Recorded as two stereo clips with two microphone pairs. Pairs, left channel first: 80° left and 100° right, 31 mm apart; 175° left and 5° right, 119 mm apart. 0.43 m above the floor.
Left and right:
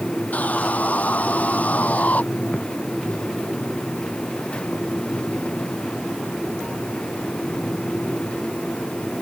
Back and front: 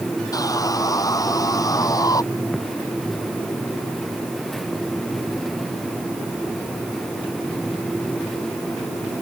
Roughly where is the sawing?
Behind left.